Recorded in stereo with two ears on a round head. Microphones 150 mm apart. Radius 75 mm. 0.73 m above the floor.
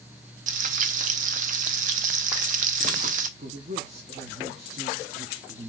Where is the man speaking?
45° right (ahead or behind), 0.8 m.